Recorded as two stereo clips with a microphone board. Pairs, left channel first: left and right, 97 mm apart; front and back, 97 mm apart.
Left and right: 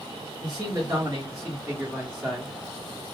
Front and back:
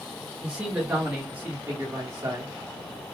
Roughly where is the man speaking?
Right.